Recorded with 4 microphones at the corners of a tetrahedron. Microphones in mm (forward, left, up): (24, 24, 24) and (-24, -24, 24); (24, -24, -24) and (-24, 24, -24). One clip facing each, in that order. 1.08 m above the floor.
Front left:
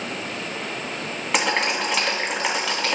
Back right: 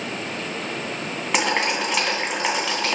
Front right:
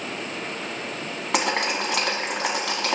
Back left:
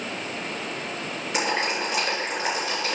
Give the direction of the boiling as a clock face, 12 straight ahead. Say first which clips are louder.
Even, front right 2 dB; 2 o'clock.